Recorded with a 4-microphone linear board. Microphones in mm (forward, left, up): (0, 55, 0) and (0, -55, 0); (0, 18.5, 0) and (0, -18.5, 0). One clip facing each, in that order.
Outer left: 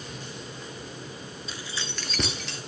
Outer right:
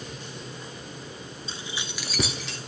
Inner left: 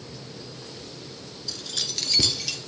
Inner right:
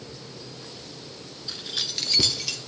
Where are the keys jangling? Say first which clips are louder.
Even, inner right 1 dB; 25° right (ahead or behind), 0.9 m; by 2.6 s centre (ahead or behind), 2 m.